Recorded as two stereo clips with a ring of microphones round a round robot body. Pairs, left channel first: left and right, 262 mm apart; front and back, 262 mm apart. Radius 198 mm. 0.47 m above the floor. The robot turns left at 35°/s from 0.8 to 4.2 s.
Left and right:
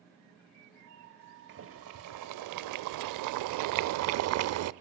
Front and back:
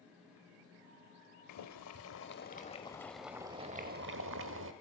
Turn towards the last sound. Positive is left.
turn(degrees=-125)